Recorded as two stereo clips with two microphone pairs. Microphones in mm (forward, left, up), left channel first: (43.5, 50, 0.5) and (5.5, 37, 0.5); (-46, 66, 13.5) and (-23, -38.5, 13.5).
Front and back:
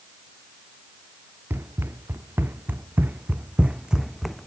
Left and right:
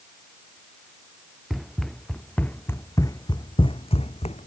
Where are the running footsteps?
165° right; by 4.5 s 105° left.